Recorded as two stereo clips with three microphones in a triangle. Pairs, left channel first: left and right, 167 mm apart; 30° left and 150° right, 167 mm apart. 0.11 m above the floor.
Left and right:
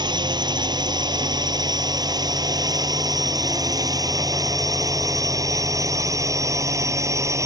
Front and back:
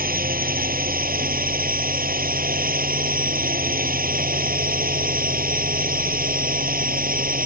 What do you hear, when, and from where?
0.0 s a drone: 150° right; by 7.5 s 160° right